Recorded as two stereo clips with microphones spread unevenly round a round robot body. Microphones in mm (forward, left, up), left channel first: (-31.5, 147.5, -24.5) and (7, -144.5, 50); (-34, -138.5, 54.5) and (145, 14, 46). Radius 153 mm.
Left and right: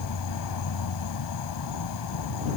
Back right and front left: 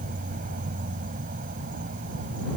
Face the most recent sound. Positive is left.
turn(degrees=105)